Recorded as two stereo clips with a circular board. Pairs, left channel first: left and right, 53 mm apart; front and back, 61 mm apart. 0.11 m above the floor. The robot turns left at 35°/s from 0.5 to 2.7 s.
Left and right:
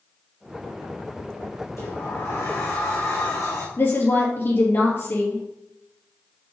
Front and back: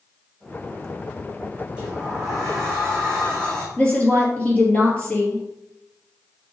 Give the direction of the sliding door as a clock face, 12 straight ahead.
8 o'clock.